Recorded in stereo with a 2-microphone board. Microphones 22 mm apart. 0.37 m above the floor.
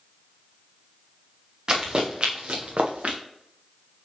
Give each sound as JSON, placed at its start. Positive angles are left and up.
{"t": 1.7, "sound": "running footsteps", "side_deg": -35, "distance_m": 3.0}